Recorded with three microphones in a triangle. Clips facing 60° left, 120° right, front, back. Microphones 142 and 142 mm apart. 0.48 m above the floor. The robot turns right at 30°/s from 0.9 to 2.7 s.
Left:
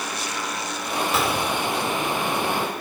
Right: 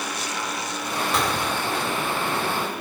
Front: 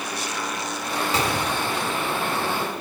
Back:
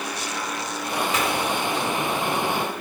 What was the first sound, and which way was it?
A gunshot, 25° right.